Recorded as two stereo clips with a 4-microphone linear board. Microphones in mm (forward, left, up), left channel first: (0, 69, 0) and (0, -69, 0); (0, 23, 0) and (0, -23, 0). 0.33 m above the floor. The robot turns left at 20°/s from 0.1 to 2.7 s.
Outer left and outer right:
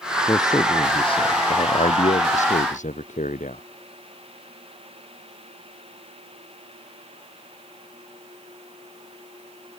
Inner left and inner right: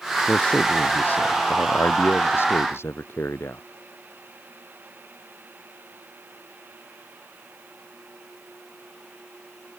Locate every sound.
0.3 s a man speaking: 155° left; by 3.6 s 105° left